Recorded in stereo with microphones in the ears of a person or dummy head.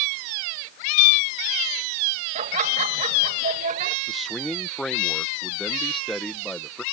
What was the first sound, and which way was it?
Laughter, 35° right (ahead or behind).